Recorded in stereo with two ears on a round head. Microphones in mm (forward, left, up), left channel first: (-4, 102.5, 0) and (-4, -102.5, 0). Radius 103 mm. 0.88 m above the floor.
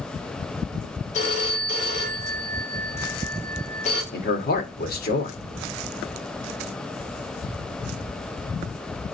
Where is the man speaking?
45° left (ahead or behind), 2 m.